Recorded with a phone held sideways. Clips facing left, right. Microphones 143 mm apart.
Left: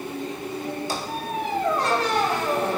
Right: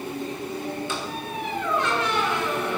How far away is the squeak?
About 3 m.